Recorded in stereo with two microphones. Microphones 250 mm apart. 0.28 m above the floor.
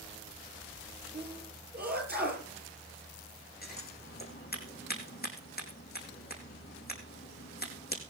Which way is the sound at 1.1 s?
40° right (ahead or behind).